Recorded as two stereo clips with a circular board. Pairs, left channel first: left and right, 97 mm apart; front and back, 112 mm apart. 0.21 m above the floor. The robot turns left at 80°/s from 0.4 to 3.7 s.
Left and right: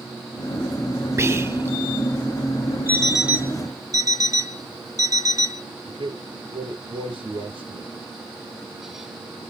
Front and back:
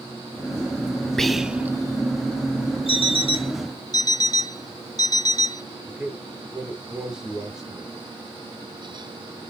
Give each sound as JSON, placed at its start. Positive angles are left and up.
{"t": 1.2, "sound": "whispering", "azimuth_deg": -80, "distance_m": 1.0}
{"t": 2.9, "sound": "an alarm clock", "azimuth_deg": 20, "distance_m": 0.9}
{"t": 5.9, "sound": "a man speaking", "azimuth_deg": -95, "distance_m": 3.0}